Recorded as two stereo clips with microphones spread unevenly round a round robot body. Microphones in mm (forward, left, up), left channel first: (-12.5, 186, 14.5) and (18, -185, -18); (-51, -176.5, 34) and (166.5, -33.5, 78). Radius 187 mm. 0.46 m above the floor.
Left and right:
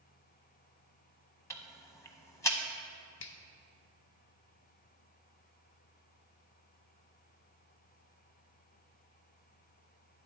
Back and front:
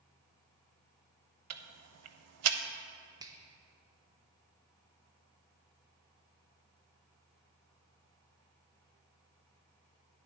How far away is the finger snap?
About 0.6 m.